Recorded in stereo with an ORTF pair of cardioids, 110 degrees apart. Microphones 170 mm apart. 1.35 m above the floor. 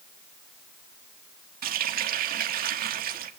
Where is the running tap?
60° right, 1.9 m.